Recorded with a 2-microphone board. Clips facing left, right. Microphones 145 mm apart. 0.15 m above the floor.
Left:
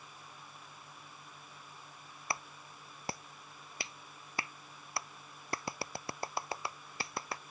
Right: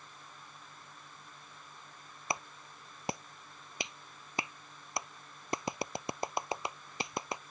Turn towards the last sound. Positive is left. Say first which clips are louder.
# right 3 dB
turn(degrees=-20)  # may be behind; listen again after turning